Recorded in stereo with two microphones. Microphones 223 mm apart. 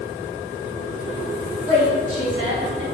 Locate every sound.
1.6 s a woman speaking: 80° right, 1.7 m; by 2.8 s 65° right (ahead or behind), 1.0 m